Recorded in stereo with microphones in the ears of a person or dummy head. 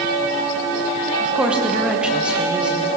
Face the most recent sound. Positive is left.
turn(degrees=-10)  # may be behind; listen again after turning